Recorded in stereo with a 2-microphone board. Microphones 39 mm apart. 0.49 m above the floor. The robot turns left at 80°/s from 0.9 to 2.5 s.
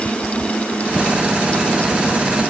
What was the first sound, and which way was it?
Only background noise.